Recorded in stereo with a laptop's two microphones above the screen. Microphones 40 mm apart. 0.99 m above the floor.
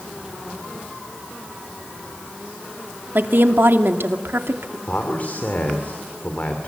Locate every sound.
3.1 s a woman speaking: 60° right (ahead or behind), 2 m; by 4.8 s 80° right, 2 m
4.9 s a man speaking: 45° left (ahead or behind), 2.5 m